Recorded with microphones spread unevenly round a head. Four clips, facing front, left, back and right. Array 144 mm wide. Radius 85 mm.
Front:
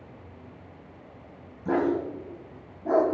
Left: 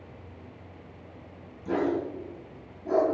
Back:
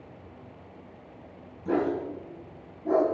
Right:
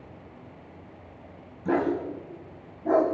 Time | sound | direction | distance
1.6 | a dog barking | 45° right | 4 m